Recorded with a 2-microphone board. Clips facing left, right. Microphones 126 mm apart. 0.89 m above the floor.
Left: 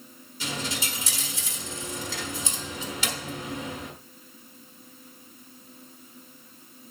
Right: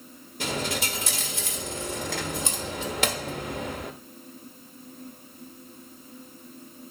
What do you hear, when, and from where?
0.4 s a dropped coin: 60° right (ahead or behind), 1.6 m